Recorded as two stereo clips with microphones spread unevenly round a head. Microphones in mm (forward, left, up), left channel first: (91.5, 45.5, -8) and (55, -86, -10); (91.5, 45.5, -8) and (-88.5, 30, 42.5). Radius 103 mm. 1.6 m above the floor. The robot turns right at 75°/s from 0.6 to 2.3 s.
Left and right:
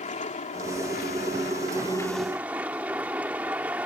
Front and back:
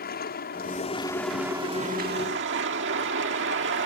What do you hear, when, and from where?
0.0 s a vehicle: 45° left; by 3.9 s 175° left